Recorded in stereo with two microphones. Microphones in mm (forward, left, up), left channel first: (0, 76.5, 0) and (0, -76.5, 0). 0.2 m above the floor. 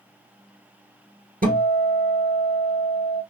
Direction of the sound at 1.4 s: 70° right (ahead or behind).